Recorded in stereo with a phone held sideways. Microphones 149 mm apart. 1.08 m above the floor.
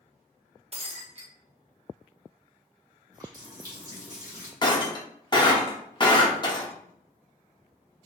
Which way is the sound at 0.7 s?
45° right (ahead or behind).